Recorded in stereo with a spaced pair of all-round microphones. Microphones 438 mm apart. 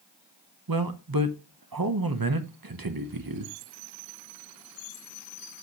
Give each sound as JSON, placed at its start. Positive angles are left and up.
{"t": 0.7, "sound": "a man speaking", "side_deg": -50, "distance_m": 0.9}